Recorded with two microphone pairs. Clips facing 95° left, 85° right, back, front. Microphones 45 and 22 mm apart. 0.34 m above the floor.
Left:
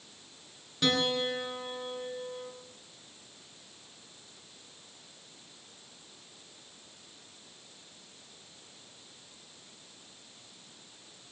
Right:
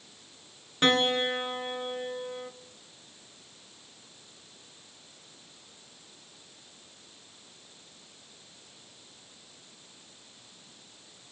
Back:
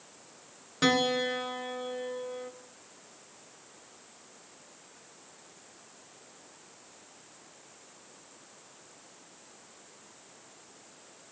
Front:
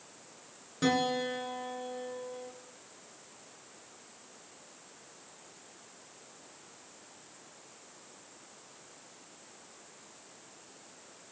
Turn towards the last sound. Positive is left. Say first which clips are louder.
# right 4 dB, back 3 dB
turn(degrees=-135)